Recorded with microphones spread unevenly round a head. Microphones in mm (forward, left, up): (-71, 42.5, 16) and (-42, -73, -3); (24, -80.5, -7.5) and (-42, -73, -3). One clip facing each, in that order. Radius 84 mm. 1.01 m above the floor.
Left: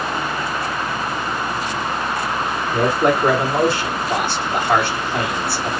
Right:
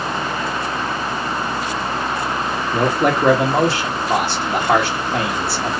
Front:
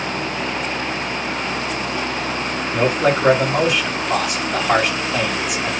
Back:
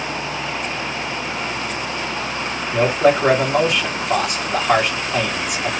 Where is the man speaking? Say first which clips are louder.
Even, back 2 dB; 95° right, 1.3 m.